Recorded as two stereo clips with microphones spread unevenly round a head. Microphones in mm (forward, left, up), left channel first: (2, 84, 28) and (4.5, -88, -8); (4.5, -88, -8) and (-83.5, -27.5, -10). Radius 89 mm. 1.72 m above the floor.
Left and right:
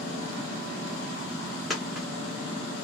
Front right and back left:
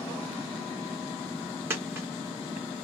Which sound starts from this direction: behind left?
A dropped coin, at 1.7 s.